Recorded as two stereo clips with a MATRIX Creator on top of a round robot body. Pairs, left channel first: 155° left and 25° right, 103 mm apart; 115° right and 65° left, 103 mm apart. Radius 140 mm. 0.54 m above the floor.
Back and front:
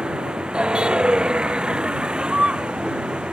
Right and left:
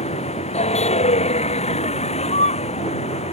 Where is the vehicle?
105° right.